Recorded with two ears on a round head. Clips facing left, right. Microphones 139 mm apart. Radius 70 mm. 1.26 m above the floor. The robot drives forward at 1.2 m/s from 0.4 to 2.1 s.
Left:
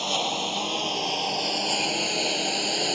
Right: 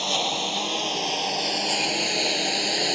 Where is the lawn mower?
5° right (ahead or behind).